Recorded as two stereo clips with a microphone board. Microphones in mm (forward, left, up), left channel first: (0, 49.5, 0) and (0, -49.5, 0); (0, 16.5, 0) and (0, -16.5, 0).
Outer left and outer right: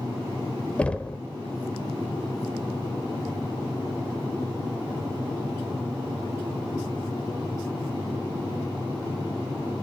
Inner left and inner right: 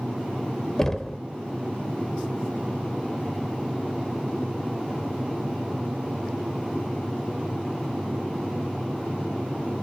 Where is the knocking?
10° left (ahead or behind), 0.8 m.